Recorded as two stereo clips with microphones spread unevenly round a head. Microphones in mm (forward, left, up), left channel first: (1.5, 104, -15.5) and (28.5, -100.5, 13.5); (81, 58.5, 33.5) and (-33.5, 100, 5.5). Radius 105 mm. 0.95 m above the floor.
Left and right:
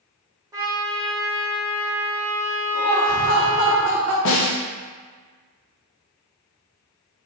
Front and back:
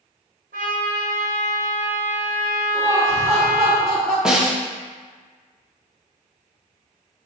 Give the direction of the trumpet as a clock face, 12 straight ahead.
5 o'clock.